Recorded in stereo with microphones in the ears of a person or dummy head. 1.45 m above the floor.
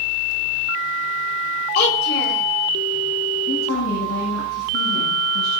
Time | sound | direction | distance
1.8 | a child speaking | 55° left (ahead or behind) | 3.5 m
3.5 | a woman speaking | 80° left | 9 m